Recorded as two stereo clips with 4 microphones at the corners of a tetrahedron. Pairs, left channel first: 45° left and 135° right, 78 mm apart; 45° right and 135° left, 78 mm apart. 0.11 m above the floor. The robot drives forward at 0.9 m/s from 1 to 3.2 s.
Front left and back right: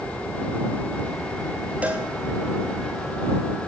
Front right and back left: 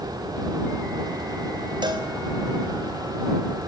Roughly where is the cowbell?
Behind left.